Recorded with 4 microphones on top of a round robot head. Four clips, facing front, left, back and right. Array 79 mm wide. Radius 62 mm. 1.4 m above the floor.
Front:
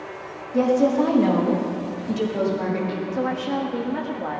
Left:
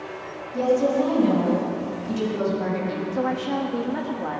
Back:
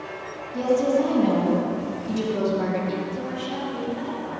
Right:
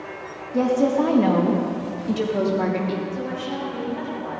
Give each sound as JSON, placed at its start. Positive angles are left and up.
{"t": 0.5, "sound": "a woman speaking", "azimuth_deg": -40, "distance_m": 1.9}
{"t": 3.1, "sound": "a woman speaking", "azimuth_deg": 45, "distance_m": 1.8}